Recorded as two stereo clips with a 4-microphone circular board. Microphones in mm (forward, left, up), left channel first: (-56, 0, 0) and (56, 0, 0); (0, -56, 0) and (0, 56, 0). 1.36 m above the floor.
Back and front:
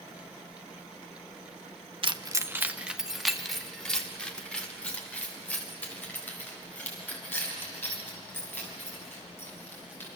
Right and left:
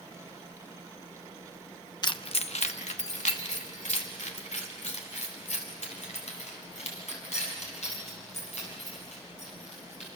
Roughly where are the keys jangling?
Ahead right.